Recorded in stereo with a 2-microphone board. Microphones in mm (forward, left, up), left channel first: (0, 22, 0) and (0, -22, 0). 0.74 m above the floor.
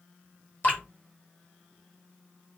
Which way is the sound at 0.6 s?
40° left (ahead or behind).